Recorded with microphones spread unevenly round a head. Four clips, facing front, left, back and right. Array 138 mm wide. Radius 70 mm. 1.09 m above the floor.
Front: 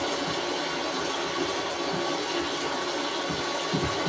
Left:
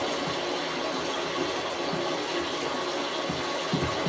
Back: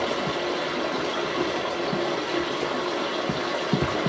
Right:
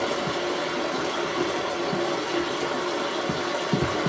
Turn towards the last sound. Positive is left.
turn(degrees=-145)